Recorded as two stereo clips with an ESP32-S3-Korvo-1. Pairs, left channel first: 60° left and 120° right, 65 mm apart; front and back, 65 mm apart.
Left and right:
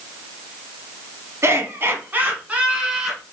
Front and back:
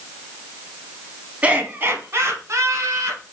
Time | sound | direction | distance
1.4 | laughter | 125° right | 1.3 m